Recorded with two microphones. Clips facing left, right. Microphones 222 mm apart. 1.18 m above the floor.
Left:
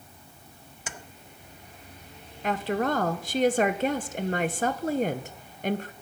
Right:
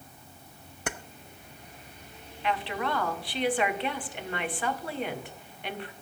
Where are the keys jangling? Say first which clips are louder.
Right 8 dB; 60° right (ahead or behind), 0.6 m.